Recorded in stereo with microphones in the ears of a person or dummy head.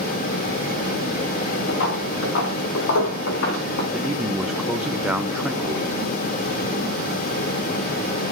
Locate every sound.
1.7 s footsteps: 70° left (ahead or behind), 4.5 m; by 3.8 s 60° left (ahead or behind), 4 m
3.9 s a man speaking: centre (ahead or behind), 1.0 m